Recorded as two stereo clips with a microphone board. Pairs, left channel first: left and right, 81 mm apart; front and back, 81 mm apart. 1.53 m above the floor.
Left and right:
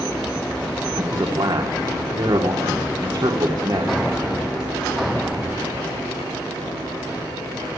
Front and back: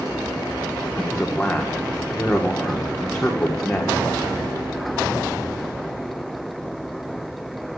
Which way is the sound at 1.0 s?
80° right.